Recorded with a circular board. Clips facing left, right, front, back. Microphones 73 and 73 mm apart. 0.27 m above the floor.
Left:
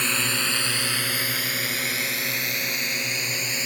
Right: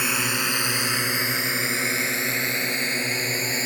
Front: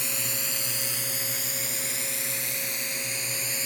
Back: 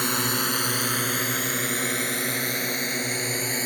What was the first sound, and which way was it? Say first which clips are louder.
A drone: right 1 dB, back 10 dB; 170° right.